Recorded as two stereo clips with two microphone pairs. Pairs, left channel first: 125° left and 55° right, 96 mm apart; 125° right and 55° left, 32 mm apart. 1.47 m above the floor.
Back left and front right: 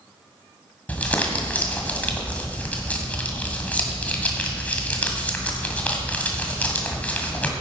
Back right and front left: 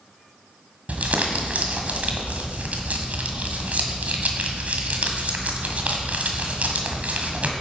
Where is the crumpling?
55° left, 1.9 m.